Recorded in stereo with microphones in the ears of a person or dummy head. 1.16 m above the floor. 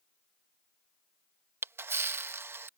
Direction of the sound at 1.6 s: 10° right (ahead or behind).